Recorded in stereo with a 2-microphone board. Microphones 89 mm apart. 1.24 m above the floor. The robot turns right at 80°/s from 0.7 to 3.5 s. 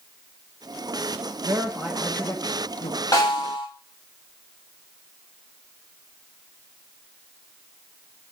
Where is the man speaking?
45° right, 1.1 m; by 3.0 s 80° left, 1.1 m.